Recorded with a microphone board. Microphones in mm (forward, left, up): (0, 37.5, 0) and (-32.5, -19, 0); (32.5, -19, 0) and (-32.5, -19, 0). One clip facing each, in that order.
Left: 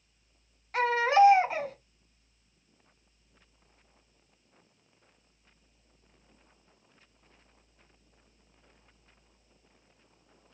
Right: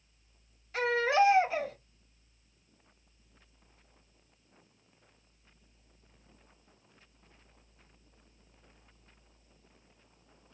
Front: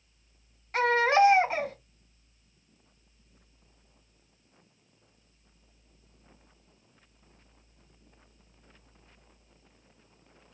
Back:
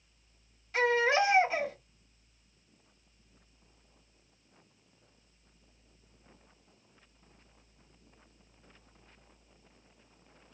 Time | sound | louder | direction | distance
0.7 | a baby crying | left 4 dB, front 4 dB | 45° left | 1.7 m